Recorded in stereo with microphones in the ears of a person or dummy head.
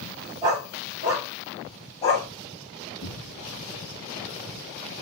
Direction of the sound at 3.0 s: 45° left (ahead or behind).